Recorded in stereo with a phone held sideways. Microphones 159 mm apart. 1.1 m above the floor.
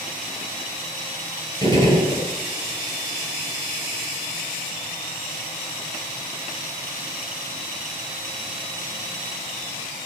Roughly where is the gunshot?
Left.